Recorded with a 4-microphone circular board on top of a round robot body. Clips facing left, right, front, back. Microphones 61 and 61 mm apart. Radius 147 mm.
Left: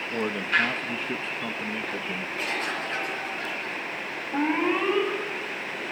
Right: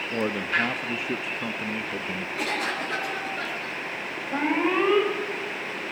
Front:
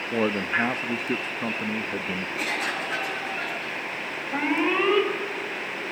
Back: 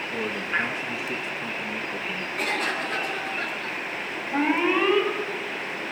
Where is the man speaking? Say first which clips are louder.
Left 1 dB, front 4 dB; 10° right, 0.7 m.